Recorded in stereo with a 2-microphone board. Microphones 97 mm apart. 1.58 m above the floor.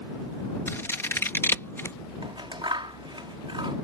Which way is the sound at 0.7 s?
25° left (ahead or behind).